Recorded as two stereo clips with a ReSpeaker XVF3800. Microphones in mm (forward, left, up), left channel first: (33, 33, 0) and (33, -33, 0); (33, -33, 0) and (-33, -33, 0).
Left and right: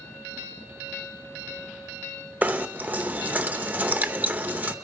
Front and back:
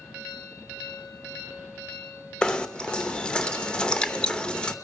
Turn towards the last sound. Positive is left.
turn(degrees=-60)